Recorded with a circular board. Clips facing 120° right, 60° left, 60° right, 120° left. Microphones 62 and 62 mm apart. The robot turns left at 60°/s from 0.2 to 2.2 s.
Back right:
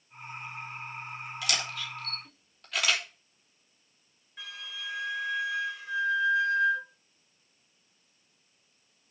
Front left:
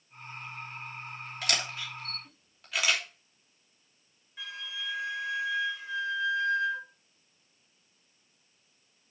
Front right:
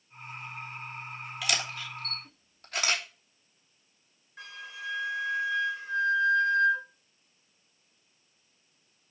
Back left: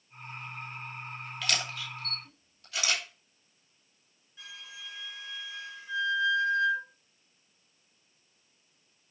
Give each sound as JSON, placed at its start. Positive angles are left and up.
{"t": 1.4, "sound": "a camera shutter", "azimuth_deg": 20, "distance_m": 3.0}
{"t": 4.4, "sound": "a flute", "azimuth_deg": -30, "distance_m": 3.5}